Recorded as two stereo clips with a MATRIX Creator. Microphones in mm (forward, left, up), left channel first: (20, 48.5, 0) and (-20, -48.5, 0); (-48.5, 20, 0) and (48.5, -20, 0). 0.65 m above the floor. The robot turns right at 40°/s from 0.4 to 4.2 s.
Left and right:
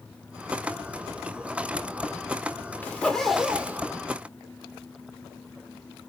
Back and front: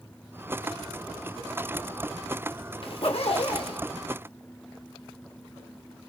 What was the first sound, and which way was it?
A zipper, 140° left.